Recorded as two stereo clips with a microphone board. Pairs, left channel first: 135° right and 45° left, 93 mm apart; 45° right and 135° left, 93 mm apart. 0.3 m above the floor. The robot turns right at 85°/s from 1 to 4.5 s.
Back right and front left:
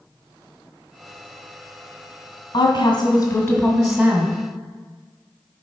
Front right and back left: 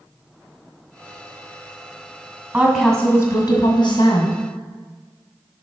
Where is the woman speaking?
160° right, 1.8 m; by 4.4 s 5° right, 1.8 m.